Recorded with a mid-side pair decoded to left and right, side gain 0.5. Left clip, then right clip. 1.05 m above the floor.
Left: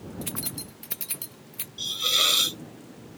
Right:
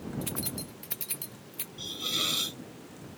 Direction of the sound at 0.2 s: 20° left.